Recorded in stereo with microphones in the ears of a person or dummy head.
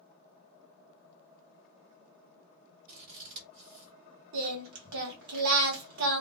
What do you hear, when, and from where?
2.9 s scissors: 50° right (ahead or behind), 1.6 m
4.3 s singing: 65° right (ahead or behind), 1.1 m